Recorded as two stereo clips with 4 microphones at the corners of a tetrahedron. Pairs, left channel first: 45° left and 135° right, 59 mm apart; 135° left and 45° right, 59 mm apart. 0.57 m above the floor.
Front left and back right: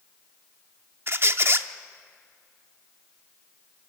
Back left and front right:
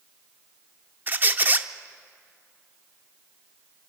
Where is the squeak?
95° right, 0.6 m.